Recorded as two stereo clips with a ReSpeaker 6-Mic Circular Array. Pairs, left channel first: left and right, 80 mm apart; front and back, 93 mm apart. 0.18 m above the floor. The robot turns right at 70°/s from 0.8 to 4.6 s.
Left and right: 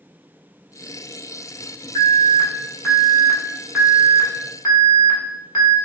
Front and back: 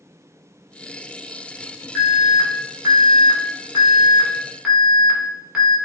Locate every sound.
1.9 s an alarm: 75° left, 0.9 m; by 5.8 s 100° right, 0.9 m